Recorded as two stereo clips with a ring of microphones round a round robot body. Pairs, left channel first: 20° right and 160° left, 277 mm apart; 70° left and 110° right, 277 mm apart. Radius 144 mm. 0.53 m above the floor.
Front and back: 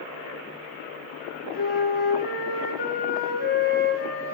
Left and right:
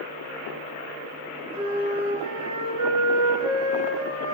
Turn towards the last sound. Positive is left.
turn(degrees=-80)